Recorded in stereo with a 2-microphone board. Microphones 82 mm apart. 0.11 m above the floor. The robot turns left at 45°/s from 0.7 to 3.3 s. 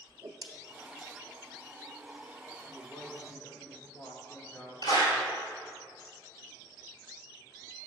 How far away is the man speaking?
About 1.1 m.